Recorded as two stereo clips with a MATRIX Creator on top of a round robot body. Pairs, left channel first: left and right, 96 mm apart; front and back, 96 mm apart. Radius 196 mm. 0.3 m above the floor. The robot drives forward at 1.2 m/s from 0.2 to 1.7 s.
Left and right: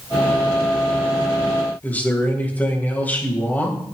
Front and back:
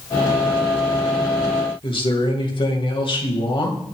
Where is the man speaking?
20° left, 3.5 m.